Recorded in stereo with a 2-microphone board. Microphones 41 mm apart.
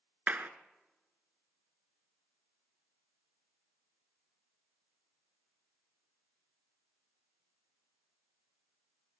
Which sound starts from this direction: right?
A clap, at 0.3 s.